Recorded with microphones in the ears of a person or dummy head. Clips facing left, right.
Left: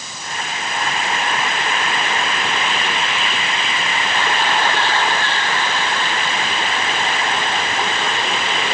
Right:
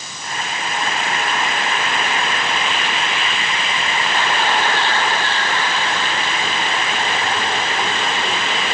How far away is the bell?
I don't hear a bell.